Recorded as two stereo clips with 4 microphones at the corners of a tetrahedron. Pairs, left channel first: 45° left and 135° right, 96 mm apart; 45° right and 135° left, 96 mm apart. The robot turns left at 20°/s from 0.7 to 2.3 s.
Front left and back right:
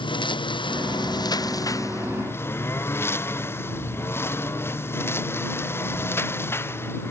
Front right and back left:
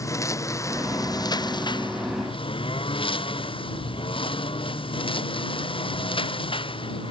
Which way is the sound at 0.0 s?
10° left.